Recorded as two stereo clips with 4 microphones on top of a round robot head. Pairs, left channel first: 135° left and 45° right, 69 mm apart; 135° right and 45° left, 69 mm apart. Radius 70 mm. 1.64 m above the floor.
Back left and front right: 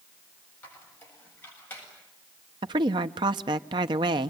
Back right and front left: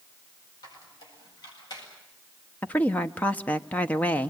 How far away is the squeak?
About 8 m.